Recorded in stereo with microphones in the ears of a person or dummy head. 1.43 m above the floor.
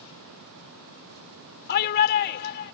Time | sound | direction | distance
1.7 | a shout | 55° left (ahead or behind) | ?